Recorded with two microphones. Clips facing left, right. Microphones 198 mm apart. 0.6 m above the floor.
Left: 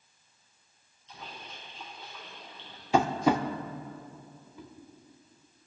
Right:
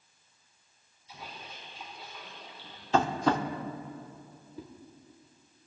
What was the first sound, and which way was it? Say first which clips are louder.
A splash: even; 10° right (ahead or behind).